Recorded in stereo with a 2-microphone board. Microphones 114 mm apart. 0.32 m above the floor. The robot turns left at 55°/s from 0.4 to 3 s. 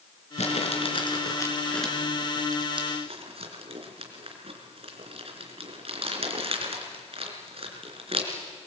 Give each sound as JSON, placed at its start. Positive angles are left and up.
{"t": 0.4, "sound": "crumpling", "side_deg": 75, "distance_m": 3.5}